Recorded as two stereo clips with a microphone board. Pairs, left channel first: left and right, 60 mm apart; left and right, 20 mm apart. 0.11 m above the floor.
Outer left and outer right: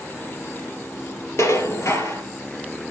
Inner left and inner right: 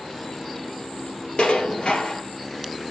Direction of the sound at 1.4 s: 55° left (ahead or behind).